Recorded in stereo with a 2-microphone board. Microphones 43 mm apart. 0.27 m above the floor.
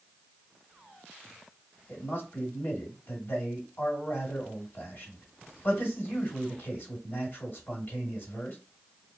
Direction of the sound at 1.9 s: 40° left (ahead or behind).